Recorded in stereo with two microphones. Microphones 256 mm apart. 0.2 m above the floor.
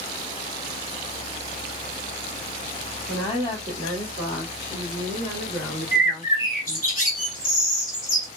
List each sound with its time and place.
3.1 s a woman speaking: 25° left (ahead or behind), 1.8 m; by 6.9 s 10° left (ahead or behind), 4 m
5.9 s a bird: 35° left (ahead or behind), 1.8 m